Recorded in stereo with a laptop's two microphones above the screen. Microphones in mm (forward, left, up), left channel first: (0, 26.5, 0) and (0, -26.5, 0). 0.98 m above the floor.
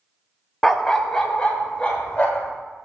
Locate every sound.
0.6 s a dog barking: centre (ahead or behind), 0.5 m; by 2.5 s 20° left (ahead or behind), 1.6 m